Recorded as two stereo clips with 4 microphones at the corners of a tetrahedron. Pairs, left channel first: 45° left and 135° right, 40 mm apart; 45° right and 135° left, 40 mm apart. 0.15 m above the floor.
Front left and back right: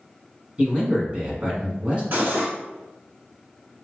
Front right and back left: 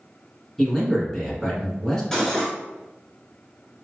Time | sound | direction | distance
0.6 | a man speaking | 110° right | 1.4 m
2.1 | cutlery clinking | 120° right | 1.1 m